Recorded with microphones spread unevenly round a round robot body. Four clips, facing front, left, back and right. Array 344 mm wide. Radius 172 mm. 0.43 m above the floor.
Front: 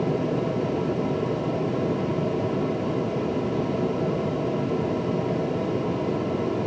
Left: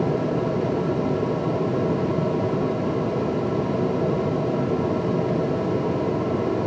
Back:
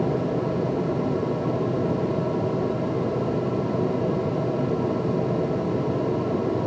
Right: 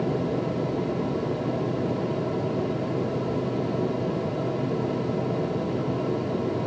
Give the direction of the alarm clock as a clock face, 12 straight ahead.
No alarm clock in this recording.